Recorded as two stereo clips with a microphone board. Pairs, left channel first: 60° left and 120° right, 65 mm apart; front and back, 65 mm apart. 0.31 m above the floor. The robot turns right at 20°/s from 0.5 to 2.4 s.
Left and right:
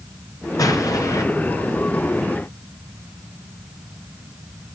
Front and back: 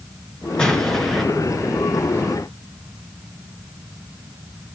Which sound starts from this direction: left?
An explosion, at 0.6 s.